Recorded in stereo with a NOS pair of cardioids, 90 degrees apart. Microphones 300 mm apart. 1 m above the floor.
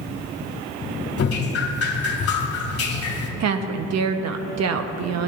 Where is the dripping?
55° left, 1.9 m.